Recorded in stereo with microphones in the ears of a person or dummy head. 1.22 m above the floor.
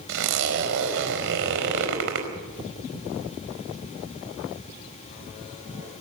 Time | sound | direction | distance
0.1 | a zipper | 65° right (ahead or behind) | 4.5 m